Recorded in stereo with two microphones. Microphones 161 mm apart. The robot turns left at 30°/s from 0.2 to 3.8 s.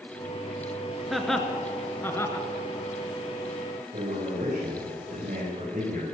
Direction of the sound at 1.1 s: Centre (ahead or behind).